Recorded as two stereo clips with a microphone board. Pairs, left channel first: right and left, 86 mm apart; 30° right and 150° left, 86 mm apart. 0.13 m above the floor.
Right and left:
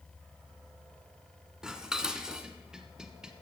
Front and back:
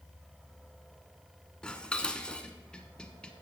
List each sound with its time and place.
1.6 s dishes clattering: 25° left, 0.9 m